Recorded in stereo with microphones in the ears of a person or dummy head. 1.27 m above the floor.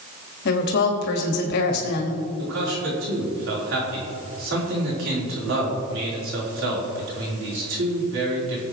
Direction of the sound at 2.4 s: 70° right (ahead or behind).